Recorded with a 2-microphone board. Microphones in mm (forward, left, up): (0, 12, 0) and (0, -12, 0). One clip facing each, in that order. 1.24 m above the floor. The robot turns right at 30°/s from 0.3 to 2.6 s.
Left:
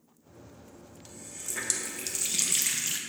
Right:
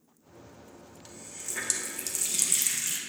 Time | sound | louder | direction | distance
1.1 | a running tap | even | 15° right (ahead or behind) | 0.7 m